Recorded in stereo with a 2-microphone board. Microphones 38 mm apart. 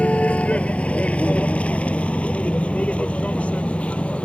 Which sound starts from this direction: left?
A vehicle, at 0.0 s.